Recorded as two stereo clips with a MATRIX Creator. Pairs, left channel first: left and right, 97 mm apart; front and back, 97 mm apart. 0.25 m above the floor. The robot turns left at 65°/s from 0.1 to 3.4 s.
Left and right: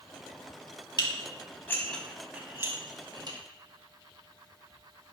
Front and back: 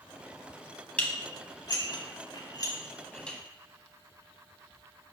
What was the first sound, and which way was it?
Dishes clattering, 75° left.